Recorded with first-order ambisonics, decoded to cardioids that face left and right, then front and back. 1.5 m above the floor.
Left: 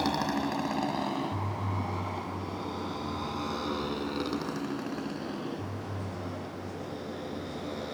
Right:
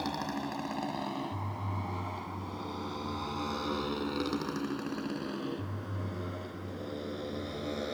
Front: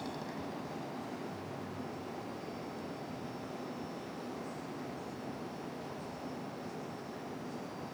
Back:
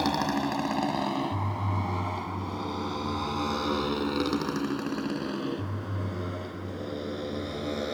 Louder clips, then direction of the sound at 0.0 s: Left 6 dB, back 14 dB; 155° left.